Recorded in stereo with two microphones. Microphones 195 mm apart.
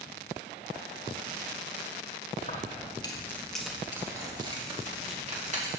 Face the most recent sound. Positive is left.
turn(degrees=-40)  # may be behind; listen again after turning